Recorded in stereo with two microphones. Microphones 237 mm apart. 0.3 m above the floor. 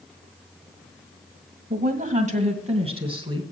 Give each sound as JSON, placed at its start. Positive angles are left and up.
{"t": 1.7, "sound": "a woman speaking", "side_deg": -40, "distance_m": 1.5}